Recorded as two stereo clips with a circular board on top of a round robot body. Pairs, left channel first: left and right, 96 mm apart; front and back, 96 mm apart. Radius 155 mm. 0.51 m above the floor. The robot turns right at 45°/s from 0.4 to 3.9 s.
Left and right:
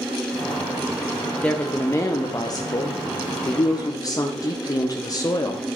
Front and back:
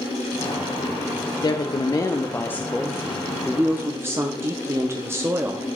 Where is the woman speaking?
15° left, 0.8 m; by 5.7 s 125° left, 0.8 m.